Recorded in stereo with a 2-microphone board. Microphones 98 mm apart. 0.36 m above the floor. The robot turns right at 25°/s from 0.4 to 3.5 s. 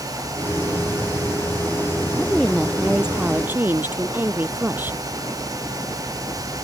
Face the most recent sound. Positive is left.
turn(degrees=-160)